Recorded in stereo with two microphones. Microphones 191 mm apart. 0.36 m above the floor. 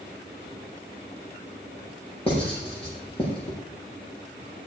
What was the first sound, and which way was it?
Writing, 30° left (ahead or behind).